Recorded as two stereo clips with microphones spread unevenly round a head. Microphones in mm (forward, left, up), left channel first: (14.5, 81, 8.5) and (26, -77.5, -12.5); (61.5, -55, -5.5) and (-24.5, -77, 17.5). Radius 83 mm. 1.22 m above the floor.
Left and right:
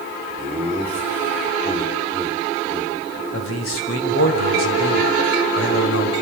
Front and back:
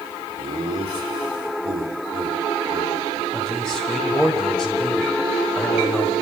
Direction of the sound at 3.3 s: 100° left.